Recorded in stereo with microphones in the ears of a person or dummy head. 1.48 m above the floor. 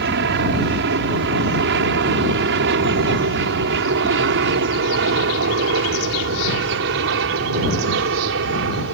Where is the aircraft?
65° right (ahead or behind); by 8.9 s 70° right (ahead or behind).